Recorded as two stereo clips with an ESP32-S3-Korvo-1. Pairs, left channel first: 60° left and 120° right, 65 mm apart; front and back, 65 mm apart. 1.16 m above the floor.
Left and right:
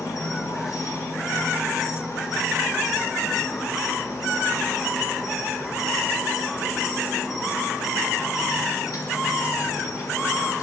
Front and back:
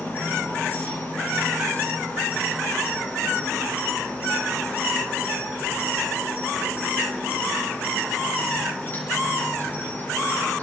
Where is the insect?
55° left, 6.5 m.